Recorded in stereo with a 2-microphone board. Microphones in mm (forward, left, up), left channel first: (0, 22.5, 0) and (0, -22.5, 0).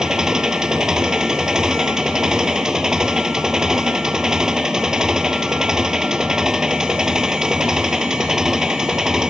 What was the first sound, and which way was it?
An engine running, 15° right (ahead or behind).